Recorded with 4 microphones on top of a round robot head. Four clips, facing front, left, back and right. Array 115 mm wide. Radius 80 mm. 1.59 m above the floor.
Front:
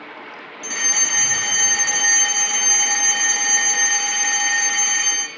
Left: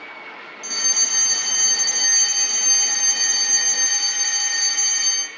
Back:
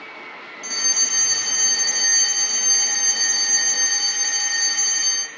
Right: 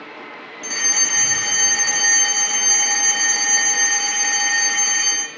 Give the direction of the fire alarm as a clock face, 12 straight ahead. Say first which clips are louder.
Right 7 dB, front 7 dB; 2 o'clock.